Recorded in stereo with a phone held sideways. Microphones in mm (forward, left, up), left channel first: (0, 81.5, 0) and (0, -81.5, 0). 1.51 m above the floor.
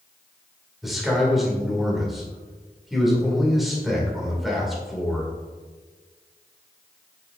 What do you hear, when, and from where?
0.8 s a man speaking: centre (ahead or behind), 2 m